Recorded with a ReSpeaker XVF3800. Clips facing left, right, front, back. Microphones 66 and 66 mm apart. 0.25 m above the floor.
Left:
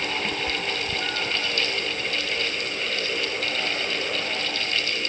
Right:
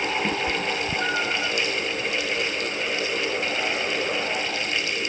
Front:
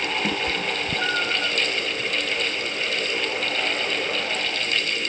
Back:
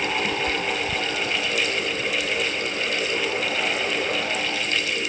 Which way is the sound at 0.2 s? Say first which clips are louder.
Right 3 dB, back 1 dB; 35° right.